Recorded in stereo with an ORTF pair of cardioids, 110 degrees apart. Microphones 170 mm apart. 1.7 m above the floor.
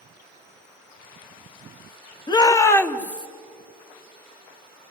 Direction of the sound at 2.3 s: 25° left.